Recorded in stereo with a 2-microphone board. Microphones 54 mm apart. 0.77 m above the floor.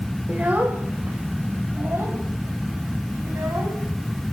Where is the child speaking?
25° right (ahead or behind), 2.5 m; by 3.8 s 55° right (ahead or behind), 5 m.